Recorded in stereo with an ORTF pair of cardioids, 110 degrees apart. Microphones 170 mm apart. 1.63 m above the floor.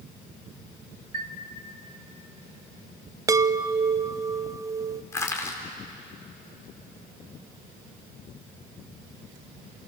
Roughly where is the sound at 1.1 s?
Ahead right.